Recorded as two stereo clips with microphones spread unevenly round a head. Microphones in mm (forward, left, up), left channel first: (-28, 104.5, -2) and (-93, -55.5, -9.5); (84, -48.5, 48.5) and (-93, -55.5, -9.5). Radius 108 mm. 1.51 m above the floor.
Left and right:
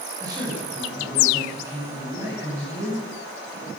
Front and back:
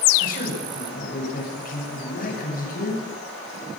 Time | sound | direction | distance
0.2 | a man speaking | 35° right | 8.5 m